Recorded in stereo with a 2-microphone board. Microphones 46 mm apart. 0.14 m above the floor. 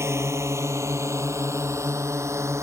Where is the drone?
65° right (ahead or behind); by 2.6 s 70° right (ahead or behind).